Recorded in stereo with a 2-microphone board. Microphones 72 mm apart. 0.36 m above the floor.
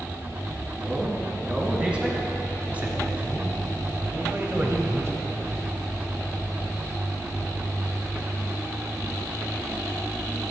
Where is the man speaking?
10° right (ahead or behind), 4 m; by 5.5 s 45° right (ahead or behind), 2.0 m.